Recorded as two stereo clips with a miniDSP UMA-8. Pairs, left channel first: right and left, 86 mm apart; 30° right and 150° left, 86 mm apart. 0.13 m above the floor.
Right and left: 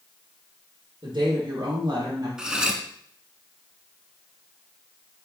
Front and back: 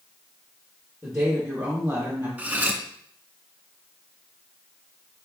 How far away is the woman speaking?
About 2 m.